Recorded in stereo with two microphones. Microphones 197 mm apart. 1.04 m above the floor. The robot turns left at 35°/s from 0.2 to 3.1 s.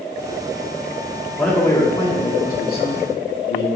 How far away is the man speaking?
About 2.5 m.